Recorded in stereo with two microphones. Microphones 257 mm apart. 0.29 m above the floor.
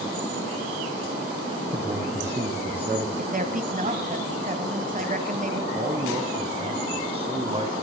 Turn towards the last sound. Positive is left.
turn(degrees=-25)  # may be behind; listen again after turning